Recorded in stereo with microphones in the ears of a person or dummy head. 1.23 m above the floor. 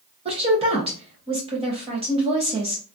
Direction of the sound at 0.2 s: 25° right (ahead or behind).